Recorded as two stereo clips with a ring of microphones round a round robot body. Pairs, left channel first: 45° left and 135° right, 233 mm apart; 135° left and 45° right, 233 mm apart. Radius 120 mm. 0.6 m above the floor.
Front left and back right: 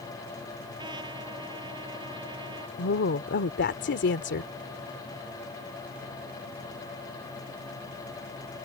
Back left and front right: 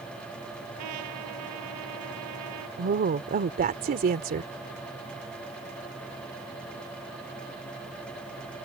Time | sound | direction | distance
0.8 | a trumpet | 65° right | ?
2.8 | a woman speaking | 5° left | ?